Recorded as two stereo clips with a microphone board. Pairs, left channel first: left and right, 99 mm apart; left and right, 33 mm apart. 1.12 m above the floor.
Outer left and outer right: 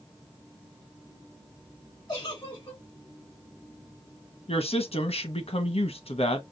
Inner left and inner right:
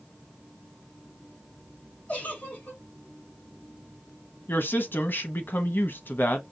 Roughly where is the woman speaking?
Left.